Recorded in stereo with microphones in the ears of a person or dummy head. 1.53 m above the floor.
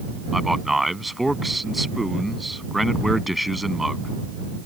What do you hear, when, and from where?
0.3 s a man speaking: 5° right (ahead or behind)